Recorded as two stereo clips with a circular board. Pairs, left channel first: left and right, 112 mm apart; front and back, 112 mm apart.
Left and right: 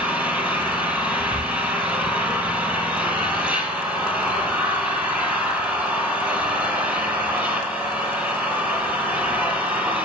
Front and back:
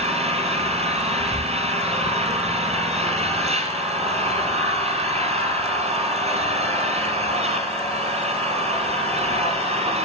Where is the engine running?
165° right, 3 m.